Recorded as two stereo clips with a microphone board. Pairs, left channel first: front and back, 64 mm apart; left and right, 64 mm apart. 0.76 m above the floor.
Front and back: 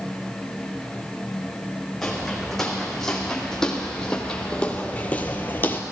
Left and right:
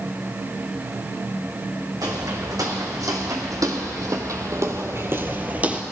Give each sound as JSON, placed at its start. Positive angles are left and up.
{"t": 2.0, "sound": "footsteps", "azimuth_deg": -85, "distance_m": 2.5}